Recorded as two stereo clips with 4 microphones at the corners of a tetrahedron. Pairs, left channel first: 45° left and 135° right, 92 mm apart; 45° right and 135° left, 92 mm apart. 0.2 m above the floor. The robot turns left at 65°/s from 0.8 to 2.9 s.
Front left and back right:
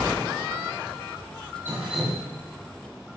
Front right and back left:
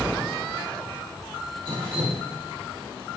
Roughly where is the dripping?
Behind.